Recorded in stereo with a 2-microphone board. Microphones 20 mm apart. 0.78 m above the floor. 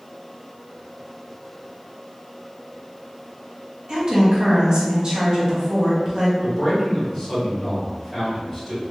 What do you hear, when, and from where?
3.9 s a woman speaking: 35° right (ahead or behind), 1.0 m
6.4 s a man speaking: 10° left (ahead or behind), 1.8 m